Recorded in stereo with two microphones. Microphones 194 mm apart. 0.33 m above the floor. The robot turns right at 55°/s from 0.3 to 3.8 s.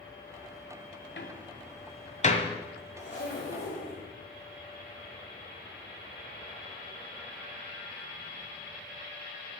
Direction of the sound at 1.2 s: 65° left (ahead or behind).